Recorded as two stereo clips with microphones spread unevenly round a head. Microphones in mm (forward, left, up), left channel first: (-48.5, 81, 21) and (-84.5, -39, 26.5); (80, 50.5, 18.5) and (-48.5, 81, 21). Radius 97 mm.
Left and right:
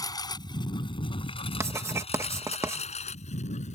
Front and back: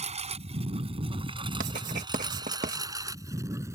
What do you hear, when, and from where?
0.0 s a lawn mower: 135° left; by 3.8 s 100° left
1.6 s writing: 170° right